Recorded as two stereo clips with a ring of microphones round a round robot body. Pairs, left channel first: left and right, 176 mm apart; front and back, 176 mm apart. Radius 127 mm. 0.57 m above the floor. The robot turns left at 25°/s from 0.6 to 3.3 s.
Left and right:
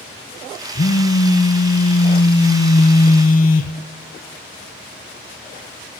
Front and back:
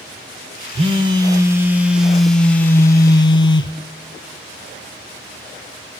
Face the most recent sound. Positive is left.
turn(degrees=65)